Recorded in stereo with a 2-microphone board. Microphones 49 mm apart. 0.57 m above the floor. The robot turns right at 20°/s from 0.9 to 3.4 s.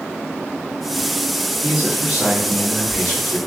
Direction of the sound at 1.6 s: 20° right.